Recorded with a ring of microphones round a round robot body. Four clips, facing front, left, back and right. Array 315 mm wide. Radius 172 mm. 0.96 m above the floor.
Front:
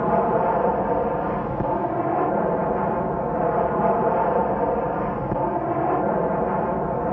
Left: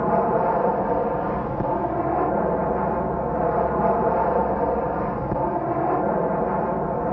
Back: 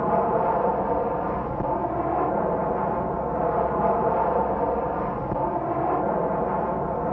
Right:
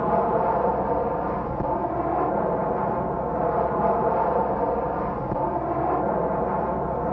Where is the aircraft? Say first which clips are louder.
Left 1 dB, front 2 dB; 40° left.